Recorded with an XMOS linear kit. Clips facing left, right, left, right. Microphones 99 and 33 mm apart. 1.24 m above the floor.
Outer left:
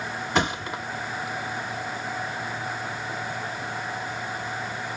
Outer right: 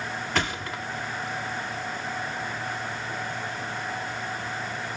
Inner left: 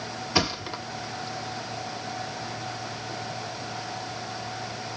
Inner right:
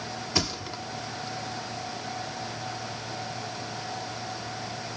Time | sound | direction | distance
0.3 | a thud | 20° left (ahead or behind) | 1.2 m